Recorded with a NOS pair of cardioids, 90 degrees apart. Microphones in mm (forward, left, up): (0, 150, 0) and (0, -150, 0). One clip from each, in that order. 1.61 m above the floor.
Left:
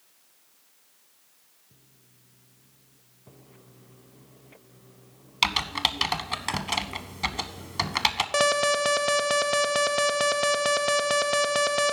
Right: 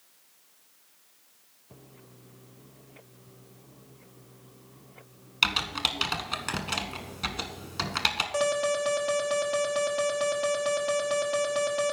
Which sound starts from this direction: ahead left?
An alarm, at 8.3 s.